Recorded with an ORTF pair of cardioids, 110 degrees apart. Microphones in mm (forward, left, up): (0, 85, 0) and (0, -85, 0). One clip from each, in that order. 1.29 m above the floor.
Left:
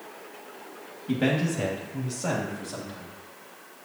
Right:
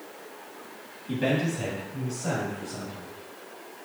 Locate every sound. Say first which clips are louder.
1.1 s a man speaking: left 1 dB; 45° left, 2 m; by 3.1 s 60° left, 3 m